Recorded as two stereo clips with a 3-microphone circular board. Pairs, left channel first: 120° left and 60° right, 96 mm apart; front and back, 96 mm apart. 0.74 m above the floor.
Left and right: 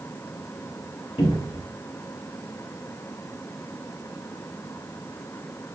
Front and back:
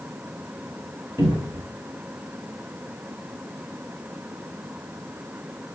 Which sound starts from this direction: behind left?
A cupboard door, at 1.2 s.